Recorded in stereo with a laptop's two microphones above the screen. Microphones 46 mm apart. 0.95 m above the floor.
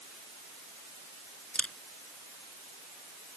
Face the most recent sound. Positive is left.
turn(degrees=20)  # may be behind; listen again after turning